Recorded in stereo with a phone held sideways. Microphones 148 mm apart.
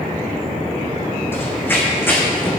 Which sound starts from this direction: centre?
Running footsteps, at 1.3 s.